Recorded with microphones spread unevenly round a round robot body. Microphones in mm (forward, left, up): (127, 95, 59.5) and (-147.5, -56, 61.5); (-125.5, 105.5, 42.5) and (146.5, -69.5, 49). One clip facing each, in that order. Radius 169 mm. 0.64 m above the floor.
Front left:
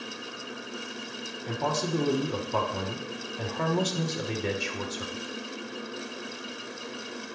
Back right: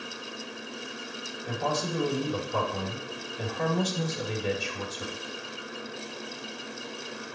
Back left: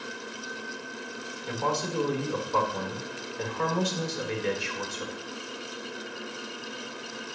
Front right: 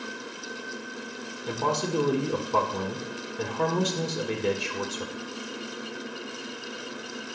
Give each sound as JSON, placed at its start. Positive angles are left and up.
{"t": 1.5, "sound": "a man speaking", "azimuth_deg": 10, "distance_m": 2.0}